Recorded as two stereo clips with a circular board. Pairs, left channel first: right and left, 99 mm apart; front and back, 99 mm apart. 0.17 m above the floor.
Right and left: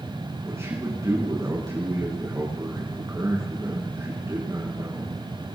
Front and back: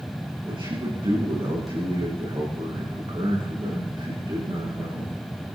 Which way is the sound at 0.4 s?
150° left.